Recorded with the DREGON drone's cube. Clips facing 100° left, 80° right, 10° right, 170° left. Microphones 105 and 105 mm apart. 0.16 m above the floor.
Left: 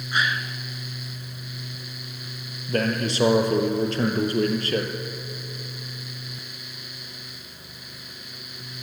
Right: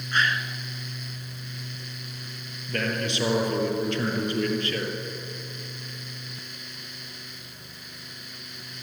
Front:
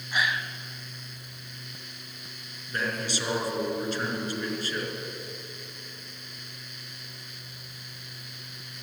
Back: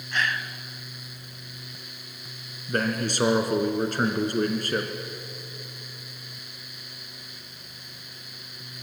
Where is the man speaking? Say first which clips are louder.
Left 4 dB, back 5 dB; 145° left, 3 m.